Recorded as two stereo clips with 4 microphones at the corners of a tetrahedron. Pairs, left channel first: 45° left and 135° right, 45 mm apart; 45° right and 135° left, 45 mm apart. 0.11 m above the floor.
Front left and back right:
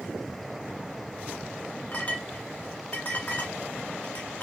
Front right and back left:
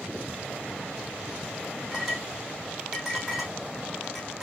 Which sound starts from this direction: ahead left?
A clink, at 1.9 s.